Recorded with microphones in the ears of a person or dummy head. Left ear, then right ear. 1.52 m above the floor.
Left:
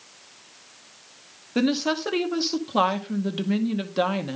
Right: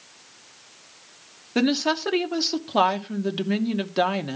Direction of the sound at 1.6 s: 15° right (ahead or behind).